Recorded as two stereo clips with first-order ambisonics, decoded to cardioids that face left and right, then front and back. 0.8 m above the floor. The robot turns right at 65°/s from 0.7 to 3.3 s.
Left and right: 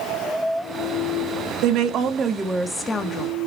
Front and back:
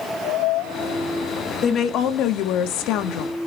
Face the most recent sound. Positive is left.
turn(degrees=45)